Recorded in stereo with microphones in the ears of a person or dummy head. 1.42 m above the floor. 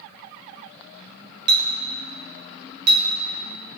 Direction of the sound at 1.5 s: 50° right (ahead or behind).